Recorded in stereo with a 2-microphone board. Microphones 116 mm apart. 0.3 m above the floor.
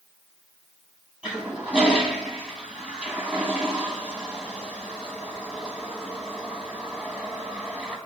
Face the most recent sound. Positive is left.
turn(degrees=-10)  # may be behind; listen again after turning